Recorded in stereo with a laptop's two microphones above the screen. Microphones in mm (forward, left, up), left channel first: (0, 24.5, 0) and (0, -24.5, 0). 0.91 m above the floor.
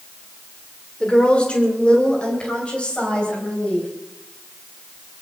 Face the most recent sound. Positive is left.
turn(degrees=20)  # may be behind; listen again after turning